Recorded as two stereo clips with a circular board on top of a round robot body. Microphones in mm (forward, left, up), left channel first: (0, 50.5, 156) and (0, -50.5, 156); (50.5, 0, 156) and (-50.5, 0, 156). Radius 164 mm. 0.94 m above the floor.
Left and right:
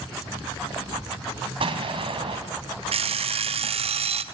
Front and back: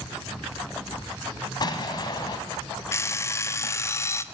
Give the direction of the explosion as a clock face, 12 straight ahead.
2 o'clock.